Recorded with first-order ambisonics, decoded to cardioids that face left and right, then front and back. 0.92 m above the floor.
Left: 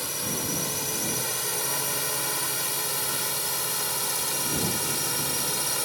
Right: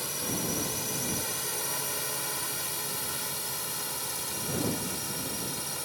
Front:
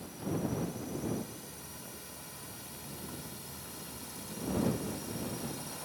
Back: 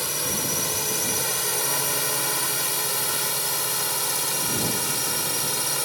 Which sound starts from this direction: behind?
A drone, at 0.0 s.